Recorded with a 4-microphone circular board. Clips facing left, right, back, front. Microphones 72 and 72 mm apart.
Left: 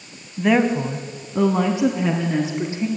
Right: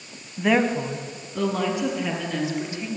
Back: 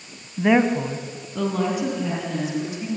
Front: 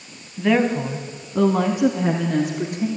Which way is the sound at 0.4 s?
Straight behind.